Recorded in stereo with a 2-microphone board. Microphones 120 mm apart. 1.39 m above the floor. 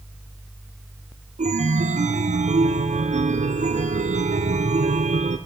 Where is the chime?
75° right (ahead or behind), 0.6 m.